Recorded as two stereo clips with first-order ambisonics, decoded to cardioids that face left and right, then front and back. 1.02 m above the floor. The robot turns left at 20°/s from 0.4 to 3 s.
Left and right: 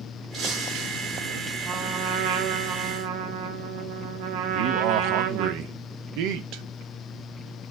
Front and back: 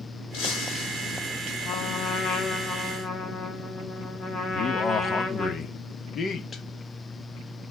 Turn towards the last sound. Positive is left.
turn(degrees=-65)